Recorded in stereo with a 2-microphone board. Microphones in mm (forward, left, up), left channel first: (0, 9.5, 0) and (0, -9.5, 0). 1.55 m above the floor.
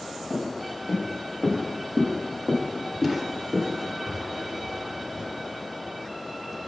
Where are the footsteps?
50° left (ahead or behind), 2.5 m; by 5.3 s 30° right (ahead or behind), 2 m.